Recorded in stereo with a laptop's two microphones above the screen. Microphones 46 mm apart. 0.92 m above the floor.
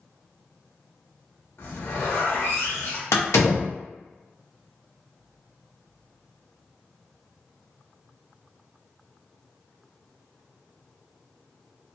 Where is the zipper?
65° left (ahead or behind), 1.0 m.